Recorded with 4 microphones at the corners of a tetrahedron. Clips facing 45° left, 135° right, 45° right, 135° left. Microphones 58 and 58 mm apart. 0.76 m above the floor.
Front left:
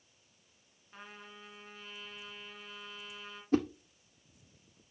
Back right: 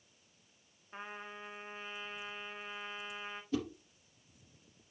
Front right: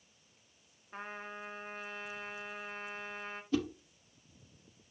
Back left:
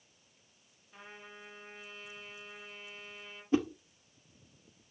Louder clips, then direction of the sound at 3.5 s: Front left 7 dB, back left 4 dB; 80° left.